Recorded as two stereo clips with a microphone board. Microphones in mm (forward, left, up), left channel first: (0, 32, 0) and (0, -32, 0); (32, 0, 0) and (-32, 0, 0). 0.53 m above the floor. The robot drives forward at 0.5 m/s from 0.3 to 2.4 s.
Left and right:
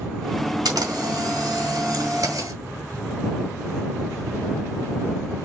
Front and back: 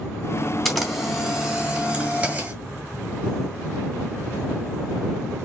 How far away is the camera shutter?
About 1.6 m.